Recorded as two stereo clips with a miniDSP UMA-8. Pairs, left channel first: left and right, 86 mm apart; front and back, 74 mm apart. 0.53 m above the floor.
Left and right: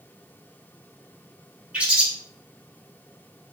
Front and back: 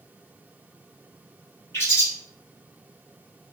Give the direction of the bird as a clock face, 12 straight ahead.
1 o'clock.